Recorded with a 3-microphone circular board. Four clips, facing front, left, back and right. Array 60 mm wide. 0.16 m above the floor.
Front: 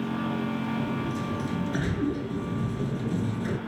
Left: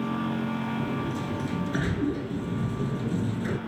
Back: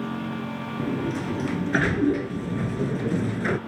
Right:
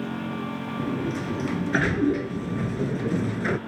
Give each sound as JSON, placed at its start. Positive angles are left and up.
{"t": 0.8, "sound": "a sliding door", "azimuth_deg": -140, "distance_m": 0.8}